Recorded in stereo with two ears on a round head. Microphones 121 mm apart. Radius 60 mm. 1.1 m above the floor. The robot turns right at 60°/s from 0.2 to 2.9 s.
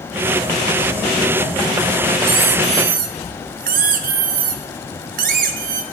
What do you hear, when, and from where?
2.2 s a squeak: 145° right, 0.8 m; by 5.8 s 105° right, 0.8 m